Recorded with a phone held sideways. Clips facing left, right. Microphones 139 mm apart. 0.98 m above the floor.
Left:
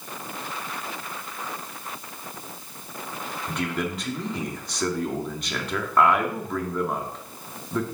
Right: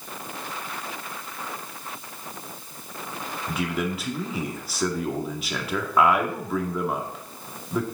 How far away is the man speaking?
About 1.9 m.